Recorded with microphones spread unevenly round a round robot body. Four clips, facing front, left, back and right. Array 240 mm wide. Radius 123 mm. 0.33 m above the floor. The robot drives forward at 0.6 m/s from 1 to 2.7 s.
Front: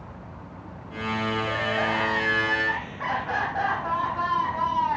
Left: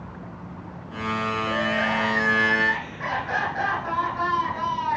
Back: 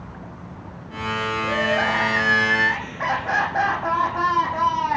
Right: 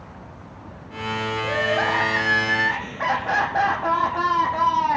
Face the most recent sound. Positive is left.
turn(degrees=-130)